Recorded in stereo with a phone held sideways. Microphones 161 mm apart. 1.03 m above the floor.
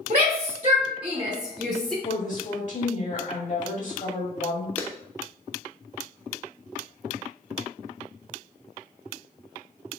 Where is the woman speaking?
55° left (ahead or behind), 2 m.